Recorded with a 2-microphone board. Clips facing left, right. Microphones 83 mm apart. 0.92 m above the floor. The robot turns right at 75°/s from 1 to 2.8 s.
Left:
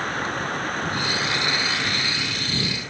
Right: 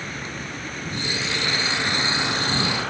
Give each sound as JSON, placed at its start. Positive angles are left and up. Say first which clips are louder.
{"t": 0.0, "sound": "running water", "louder": "left 7 dB", "azimuth_deg": 125}